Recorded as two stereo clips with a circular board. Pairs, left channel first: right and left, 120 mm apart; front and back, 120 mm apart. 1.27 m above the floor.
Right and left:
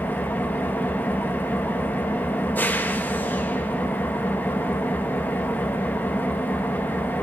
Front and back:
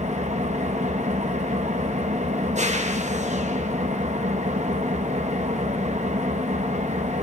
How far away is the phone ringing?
I don't hear a phone ringing.